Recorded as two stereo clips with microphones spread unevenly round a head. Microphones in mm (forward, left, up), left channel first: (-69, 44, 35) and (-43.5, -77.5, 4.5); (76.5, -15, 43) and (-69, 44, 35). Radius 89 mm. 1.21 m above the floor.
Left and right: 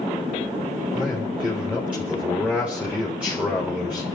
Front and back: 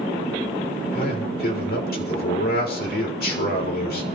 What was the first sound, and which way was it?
A man speaking, 5° left.